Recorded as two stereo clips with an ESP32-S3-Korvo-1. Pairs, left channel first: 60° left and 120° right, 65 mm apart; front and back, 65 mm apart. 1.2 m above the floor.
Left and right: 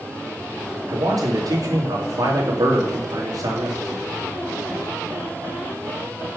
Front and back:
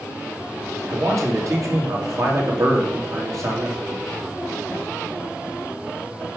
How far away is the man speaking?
About 2 m.